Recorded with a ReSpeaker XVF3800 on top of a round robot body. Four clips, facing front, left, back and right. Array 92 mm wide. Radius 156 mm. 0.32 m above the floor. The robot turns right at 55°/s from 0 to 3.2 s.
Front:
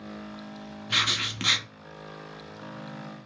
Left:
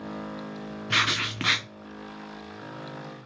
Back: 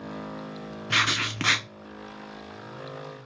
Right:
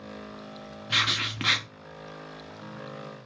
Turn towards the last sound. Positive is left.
turn(degrees=-95)